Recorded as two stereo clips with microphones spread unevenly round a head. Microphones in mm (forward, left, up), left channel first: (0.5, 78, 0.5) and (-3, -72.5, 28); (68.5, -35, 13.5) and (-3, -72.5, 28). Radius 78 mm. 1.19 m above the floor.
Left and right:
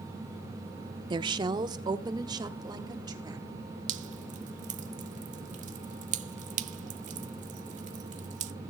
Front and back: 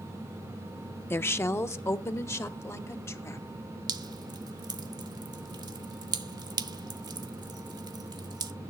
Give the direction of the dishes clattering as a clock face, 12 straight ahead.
I don't hear dishes clattering.